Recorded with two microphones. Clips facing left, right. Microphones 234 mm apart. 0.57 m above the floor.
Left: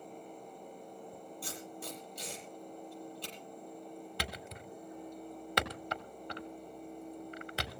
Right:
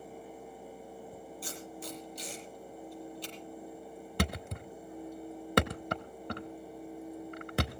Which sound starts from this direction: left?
Tape being pulled, at 1.4 s.